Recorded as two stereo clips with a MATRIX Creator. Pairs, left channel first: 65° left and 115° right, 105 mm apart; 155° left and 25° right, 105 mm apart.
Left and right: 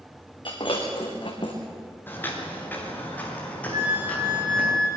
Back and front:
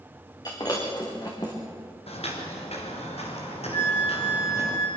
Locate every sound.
0.5 s breaking glass: 105° left, 4.5 m
2.1 s footsteps: 140° left, 5.5 m; by 4.7 s 145° left, 8.5 m
3.7 s a flute: 160° right, 7.5 m